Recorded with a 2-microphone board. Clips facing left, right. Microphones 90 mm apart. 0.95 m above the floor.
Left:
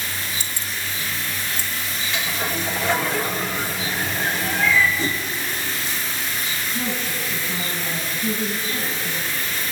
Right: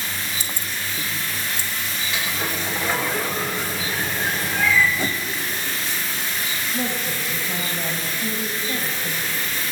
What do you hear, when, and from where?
0.4 s keys jangling: 45° right (ahead or behind), 0.7 m; by 1.7 s 65° right (ahead or behind), 1.8 m
2.1 s a sliding door: 10° right (ahead or behind), 3.5 m
5.0 s a whoosh: 55° right (ahead or behind), 1.7 m
6.7 s a woman speaking: 70° right (ahead or behind), 6 m